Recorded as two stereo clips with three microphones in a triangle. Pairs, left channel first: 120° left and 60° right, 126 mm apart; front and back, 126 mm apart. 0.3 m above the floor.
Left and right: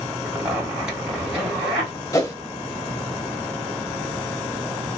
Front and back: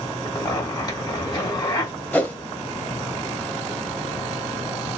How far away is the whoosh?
About 0.7 m.